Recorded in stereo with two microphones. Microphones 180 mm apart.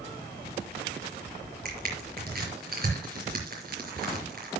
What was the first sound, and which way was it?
Crushing, 55° right (ahead or behind).